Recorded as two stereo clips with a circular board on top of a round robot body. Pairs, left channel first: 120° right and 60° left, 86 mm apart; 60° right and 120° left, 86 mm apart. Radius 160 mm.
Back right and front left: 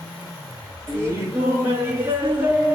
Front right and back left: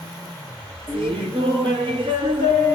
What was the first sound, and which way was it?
Laughter, 115° left.